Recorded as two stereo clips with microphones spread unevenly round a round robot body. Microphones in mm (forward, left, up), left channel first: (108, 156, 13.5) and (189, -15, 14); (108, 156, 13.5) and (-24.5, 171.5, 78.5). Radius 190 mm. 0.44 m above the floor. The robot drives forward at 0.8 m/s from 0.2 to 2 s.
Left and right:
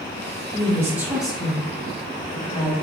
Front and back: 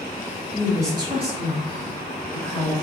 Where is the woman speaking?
30° right, 1.0 m; by 2.7 s 170° right, 1.3 m.